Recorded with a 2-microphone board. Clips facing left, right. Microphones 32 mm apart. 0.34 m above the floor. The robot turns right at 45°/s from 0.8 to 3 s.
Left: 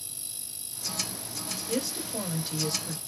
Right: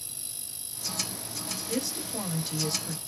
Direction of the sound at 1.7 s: 130° left.